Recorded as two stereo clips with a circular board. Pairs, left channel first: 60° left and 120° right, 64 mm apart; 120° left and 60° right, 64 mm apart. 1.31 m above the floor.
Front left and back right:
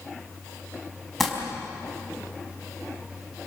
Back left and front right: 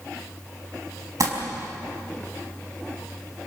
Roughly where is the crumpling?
Ahead right.